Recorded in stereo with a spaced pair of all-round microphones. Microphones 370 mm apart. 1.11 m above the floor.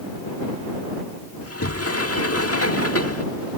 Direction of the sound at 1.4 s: 40° left (ahead or behind).